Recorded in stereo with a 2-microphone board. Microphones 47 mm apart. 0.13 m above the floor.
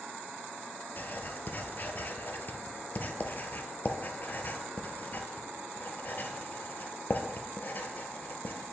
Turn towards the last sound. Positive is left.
turn(degrees=45)  # may be behind; listen again after turning